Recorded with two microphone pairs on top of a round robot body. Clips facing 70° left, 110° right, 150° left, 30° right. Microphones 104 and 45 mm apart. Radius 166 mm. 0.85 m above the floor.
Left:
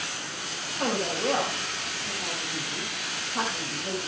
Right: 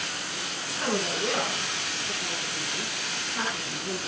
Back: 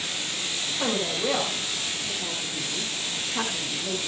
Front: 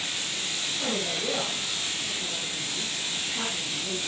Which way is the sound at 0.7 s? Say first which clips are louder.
Left 1 dB, back 4 dB; 110° left.